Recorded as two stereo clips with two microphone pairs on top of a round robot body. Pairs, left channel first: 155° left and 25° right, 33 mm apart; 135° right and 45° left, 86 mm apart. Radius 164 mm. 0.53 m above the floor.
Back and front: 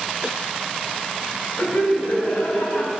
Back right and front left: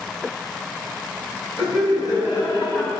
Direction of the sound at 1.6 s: Straight behind.